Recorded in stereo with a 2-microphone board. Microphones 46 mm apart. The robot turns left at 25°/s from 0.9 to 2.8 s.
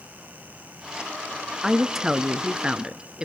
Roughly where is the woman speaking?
Centre.